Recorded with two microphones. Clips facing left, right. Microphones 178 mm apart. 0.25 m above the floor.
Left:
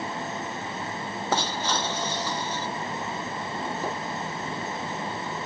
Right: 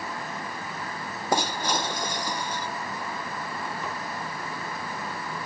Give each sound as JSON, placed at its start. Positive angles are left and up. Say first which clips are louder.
{"t": 1.3, "sound": "breaking glass", "louder": "right 2 dB", "side_deg": -15}
{"t": 3.8, "sound": "a squeak", "louder": "left 6 dB", "side_deg": 35}